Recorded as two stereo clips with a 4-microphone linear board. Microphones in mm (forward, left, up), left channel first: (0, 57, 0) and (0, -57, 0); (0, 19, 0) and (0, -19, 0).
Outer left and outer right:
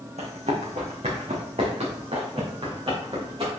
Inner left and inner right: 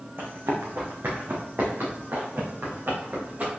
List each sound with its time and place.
0.2 s running footsteps: 70° right (ahead or behind), 2.5 m; by 3.5 s 50° right (ahead or behind), 5 m